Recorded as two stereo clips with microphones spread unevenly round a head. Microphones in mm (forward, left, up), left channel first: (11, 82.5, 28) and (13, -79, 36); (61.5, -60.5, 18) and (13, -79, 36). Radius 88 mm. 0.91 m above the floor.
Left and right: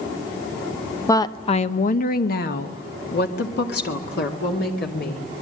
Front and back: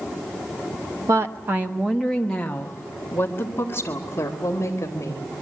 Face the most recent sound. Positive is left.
turn(degrees=70)